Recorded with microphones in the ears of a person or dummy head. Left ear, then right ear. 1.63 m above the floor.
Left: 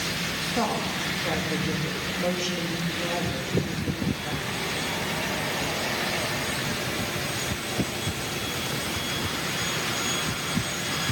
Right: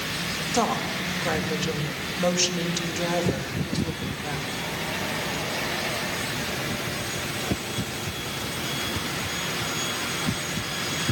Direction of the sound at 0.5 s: 90° right.